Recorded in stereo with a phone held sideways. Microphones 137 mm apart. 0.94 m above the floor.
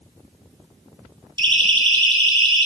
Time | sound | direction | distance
1.4 | a siren | 35° right (ahead or behind) | 8 m